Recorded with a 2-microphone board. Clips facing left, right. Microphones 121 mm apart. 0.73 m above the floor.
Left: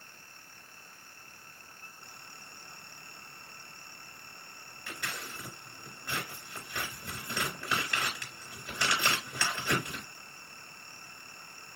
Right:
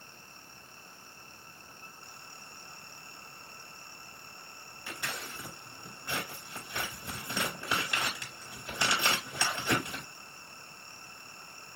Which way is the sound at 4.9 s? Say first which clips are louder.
Right 1 dB; 20° right (ahead or behind).